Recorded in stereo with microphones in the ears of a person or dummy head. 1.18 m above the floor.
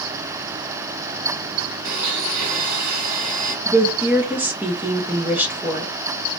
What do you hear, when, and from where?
1.9 s a blender: 65° right (ahead or behind), 1.3 m
3.6 s a woman speaking: 5° right (ahead or behind), 0.5 m